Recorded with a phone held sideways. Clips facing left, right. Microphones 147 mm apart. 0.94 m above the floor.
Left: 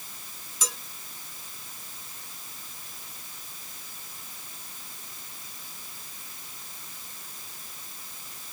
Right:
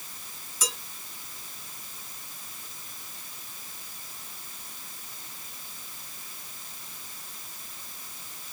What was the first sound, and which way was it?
Dishes clattering, 40° right (ahead or behind).